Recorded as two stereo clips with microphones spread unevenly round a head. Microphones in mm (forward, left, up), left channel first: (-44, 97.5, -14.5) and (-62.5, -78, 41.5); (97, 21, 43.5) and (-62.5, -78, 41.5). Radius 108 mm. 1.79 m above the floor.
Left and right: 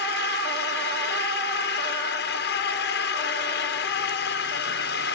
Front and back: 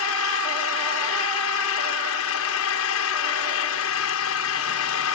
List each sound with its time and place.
0.0 s an engine running: 35° left